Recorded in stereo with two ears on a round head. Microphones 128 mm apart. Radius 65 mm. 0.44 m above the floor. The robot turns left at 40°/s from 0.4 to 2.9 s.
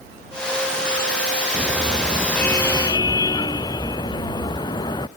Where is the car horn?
160° right; by 5.1 s 150° left.